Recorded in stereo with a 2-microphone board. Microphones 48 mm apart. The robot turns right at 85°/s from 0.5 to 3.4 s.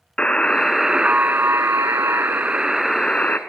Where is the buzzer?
160° left, 0.7 m; by 3.4 s 45° left, 0.7 m.